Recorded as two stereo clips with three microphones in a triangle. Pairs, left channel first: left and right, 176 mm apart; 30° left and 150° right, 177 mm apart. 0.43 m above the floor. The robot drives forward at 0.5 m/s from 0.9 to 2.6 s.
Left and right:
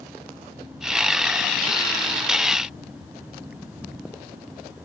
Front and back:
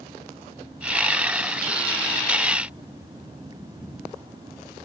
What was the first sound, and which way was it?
Only background noise.